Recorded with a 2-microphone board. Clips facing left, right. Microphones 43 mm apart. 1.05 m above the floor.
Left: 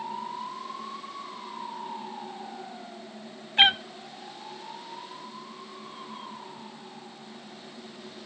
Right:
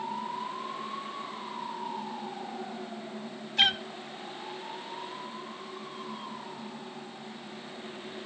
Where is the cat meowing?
30° left (ahead or behind), 0.6 m.